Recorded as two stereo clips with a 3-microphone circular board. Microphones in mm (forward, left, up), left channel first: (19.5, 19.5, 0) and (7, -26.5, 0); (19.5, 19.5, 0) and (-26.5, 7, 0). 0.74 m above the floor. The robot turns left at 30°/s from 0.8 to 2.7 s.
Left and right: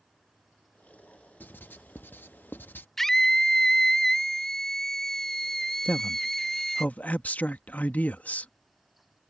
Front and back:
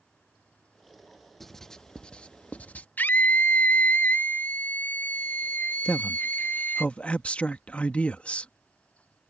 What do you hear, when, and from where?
1.4 s writing: 100° left; by 2.9 s 60° left
3.0 s a scream: 5° right
5.8 s a man speaking: 55° left